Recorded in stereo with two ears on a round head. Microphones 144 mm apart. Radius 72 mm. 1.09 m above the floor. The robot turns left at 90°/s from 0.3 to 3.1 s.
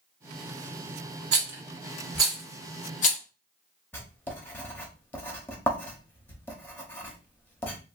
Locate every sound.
1.3 s a rattle: 75° right (ahead or behind), 1.0 m; by 3.2 s 55° left (ahead or behind), 1.0 m
3.9 s writing: 15° left (ahead or behind), 0.7 m